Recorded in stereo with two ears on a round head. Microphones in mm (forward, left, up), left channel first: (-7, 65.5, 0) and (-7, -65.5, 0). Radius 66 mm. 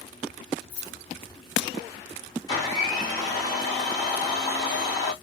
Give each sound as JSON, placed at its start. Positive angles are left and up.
{"t": 0.7, "sound": "keys jangling", "side_deg": 55, "distance_m": 1.2}
{"t": 2.5, "sound": "a blender", "side_deg": 30, "distance_m": 2.5}